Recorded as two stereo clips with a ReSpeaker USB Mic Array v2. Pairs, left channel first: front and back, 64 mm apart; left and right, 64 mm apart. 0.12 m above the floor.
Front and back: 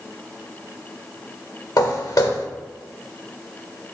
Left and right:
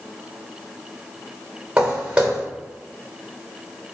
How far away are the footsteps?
About 1.1 m.